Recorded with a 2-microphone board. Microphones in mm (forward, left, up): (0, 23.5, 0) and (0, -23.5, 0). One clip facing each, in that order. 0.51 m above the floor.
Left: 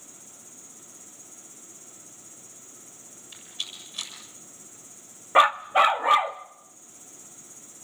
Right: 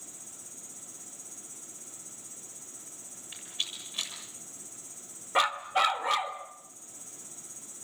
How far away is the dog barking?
About 0.5 m.